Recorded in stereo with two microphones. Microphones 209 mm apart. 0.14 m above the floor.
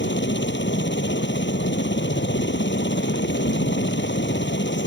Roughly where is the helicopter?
Left.